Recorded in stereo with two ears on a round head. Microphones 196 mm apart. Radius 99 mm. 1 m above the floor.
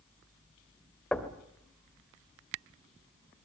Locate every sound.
1.1 s knocking: 5° left (ahead or behind), 2.5 m